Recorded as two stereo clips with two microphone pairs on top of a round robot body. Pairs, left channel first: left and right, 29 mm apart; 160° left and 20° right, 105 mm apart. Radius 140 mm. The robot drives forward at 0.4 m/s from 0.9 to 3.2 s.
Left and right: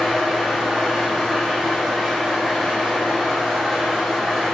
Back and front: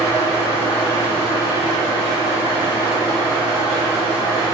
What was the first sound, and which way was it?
An engine running, straight behind.